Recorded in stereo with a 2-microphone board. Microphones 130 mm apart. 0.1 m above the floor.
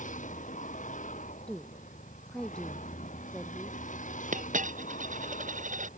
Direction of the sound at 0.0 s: 75° left (ahead or behind).